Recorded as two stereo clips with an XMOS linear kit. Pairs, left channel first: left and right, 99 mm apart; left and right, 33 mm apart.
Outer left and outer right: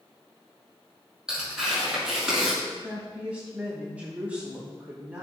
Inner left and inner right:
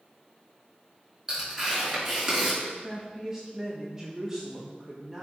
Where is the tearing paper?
5° right (ahead or behind), 5.5 m.